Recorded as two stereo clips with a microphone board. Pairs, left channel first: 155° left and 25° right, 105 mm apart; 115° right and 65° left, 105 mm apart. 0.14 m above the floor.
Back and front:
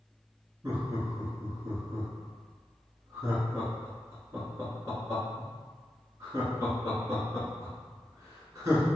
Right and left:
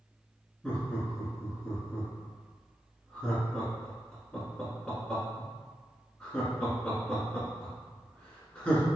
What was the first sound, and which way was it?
Laughter, 40° right.